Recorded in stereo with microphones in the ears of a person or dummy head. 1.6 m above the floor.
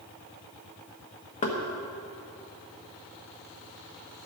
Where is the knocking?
30° left (ahead or behind), 1.3 m.